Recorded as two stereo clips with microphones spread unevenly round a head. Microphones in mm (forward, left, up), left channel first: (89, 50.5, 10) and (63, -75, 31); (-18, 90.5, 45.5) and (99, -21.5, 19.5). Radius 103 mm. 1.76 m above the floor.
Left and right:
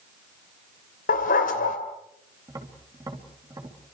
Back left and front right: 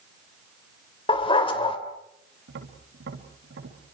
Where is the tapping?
45° right, 3.5 m.